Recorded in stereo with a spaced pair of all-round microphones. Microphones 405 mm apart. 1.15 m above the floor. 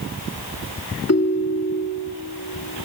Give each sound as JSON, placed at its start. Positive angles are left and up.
{"t": 1.1, "sound": "a ringtone", "side_deg": 40, "distance_m": 1.1}